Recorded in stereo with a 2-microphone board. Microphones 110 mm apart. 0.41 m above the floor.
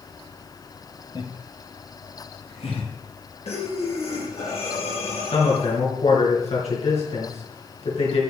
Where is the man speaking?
75° left (ahead or behind), 4.5 m.